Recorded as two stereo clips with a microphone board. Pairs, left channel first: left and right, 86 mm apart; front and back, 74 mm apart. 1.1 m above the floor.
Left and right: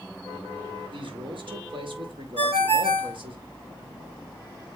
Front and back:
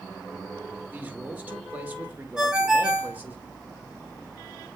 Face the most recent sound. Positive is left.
turn(degrees=-100)